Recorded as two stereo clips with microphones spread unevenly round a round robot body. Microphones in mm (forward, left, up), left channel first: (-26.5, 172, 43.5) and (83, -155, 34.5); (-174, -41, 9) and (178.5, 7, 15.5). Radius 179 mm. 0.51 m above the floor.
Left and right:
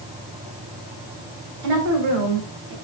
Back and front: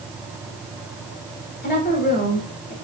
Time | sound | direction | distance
1.6 | a woman speaking | 110° right | 3 m